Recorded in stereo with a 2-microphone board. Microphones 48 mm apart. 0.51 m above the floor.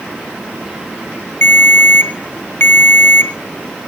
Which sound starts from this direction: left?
A ringtone, at 1.4 s.